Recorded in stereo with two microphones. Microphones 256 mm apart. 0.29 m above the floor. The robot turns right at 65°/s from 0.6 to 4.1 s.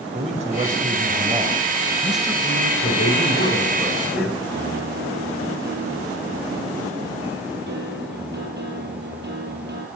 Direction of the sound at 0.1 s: 25° right (ahead or behind).